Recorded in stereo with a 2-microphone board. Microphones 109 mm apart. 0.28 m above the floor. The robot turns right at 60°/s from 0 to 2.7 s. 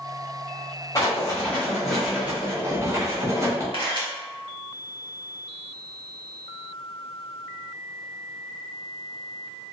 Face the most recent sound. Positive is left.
turn(degrees=55)  # may be behind; listen again after turning